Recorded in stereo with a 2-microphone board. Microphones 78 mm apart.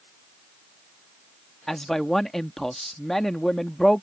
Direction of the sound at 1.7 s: 5° left (ahead or behind).